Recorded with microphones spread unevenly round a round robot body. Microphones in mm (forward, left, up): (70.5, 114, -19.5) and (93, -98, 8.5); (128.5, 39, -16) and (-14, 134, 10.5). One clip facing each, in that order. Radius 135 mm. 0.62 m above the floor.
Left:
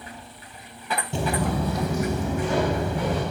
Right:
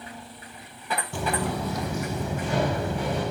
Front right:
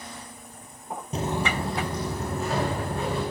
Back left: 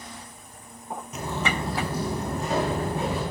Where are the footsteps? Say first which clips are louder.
Left 3 dB, front right 2 dB; 25° left, 0.9 m; by 3.2 s 80° left, 3.5 m.